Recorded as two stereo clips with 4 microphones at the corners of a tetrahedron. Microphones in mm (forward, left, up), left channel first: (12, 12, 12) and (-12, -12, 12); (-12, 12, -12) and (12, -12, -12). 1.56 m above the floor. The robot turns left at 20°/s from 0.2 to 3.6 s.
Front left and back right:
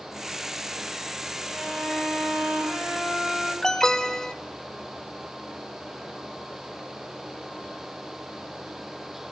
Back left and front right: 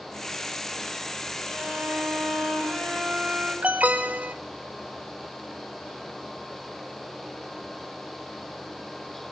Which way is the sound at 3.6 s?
30° right.